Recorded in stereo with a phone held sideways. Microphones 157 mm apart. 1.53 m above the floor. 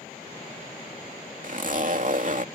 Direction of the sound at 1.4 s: 55° right (ahead or behind).